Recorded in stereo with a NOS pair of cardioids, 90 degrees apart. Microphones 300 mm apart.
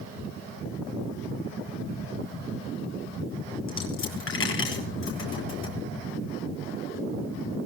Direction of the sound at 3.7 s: 45° left.